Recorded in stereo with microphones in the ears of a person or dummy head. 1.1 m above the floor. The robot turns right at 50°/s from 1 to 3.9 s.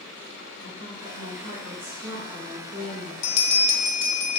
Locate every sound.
0.6 s a woman speaking: 145° right, 1.6 m; by 3.1 s 35° right, 1.6 m
3.2 s a bell: 80° left, 0.6 m; by 4.4 s 115° left, 0.6 m